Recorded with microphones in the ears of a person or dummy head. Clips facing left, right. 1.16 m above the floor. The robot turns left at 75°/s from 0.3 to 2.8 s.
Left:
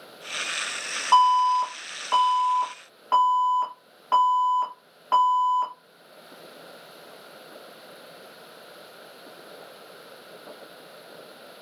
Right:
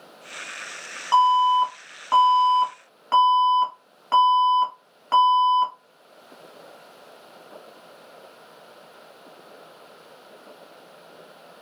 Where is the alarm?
25° right, 1.5 m; by 5.7 s 155° right, 1.5 m.